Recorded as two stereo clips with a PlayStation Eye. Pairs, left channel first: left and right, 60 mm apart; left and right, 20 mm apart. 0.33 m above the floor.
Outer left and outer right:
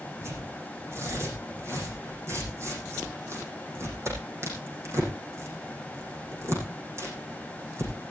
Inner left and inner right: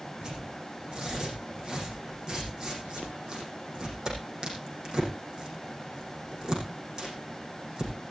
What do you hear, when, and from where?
0.2 s tearing paper: 45° right (ahead or behind), 7.5 m